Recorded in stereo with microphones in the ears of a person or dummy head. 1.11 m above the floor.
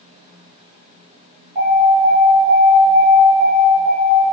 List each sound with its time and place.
1.6 s an alarm: 45° right (ahead or behind), 1.5 m